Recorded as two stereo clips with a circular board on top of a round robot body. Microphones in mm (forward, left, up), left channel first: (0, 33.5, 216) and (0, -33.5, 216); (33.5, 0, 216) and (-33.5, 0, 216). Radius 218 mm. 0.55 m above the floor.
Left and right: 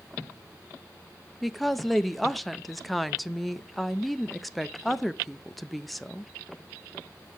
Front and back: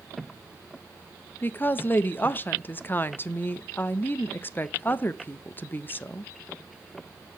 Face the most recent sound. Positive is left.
turn(degrees=0)